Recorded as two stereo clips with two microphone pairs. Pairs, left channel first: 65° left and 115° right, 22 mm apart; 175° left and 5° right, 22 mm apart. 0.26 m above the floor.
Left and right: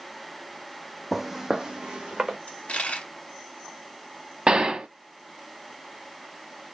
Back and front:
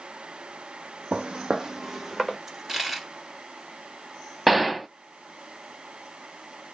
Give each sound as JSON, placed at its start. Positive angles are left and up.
{"t": 1.1, "sound": "footsteps", "azimuth_deg": -35, "distance_m": 0.8}
{"t": 2.5, "sound": "a dropped coin", "azimuth_deg": 75, "distance_m": 1.3}
{"t": 4.5, "sound": "a gunshot", "azimuth_deg": -85, "distance_m": 0.6}